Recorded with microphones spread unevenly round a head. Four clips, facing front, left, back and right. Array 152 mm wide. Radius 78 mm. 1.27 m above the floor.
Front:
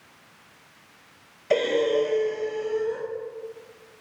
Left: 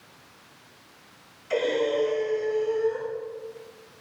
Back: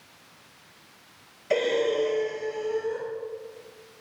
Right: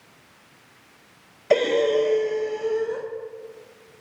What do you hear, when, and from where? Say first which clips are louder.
1.5 s breathing: right 5 dB, front 2 dB; 80° right, 1.7 m